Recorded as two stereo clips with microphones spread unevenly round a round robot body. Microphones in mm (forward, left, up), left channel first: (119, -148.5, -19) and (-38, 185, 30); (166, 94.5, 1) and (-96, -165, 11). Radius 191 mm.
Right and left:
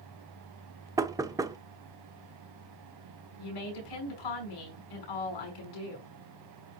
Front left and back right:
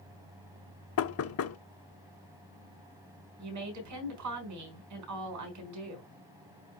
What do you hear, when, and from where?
1.0 s knocking: 30° left, 0.7 m
3.4 s a woman speaking: 90° right, 5.5 m